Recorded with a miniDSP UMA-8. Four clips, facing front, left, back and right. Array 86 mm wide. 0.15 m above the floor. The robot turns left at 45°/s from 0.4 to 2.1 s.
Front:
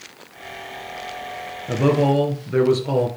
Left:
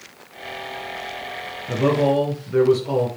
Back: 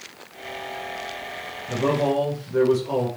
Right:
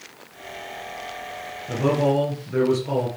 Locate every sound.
1.7 s a man speaking: 25° left, 3 m; by 3.1 s 5° left, 3 m